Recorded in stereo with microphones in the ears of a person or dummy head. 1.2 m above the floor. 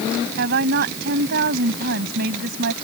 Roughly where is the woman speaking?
Right.